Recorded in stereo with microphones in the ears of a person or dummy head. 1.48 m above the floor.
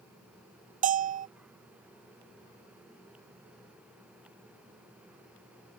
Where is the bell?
40° right (ahead or behind).